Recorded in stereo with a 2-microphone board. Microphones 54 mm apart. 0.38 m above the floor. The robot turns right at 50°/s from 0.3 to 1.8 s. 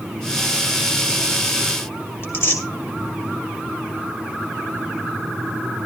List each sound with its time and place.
2.2 s tearing paper: 45° left (ahead or behind), 2.0 m